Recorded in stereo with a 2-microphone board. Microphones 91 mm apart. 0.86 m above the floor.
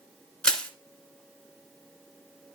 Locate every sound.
0.4 s crushing: 10° left (ahead or behind), 1.6 m